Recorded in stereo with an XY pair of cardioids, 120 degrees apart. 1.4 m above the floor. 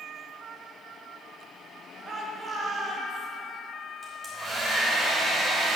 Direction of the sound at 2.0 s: 35° right.